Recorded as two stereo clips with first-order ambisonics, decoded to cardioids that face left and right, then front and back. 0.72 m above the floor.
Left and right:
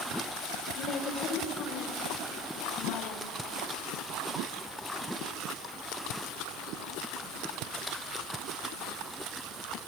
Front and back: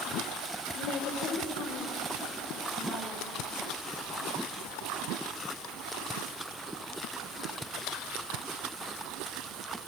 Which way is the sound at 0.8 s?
35° left.